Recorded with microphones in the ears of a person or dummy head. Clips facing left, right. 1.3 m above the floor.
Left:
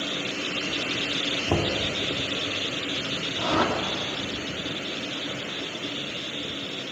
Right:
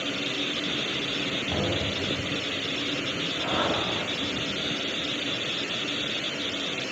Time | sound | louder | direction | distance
1.5 | knocking | left 4 dB | 85° left | 2.5 m
3.4 | a whoosh | left 4 dB | 65° left (ahead or behind) | 2.5 m